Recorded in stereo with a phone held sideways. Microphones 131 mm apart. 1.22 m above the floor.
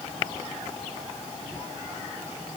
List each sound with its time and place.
Only background noise.